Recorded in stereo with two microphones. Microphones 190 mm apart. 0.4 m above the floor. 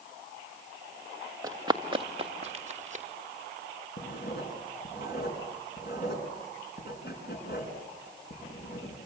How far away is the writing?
About 4.5 m.